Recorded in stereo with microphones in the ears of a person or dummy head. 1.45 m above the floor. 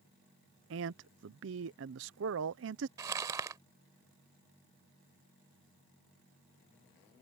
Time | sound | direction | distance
0.7 | a man speaking | 60° right (ahead or behind) | ?
3.0 | crumpling | 20° right (ahead or behind) | ?